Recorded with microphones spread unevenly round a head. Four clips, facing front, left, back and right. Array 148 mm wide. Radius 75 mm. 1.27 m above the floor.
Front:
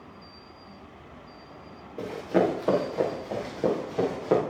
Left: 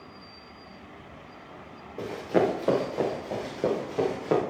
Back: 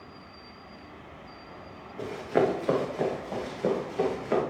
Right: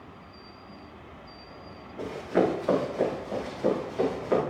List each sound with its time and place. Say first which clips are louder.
2.0 s running footsteps: left 1 dB, front 1 dB; 45° left, 7.5 m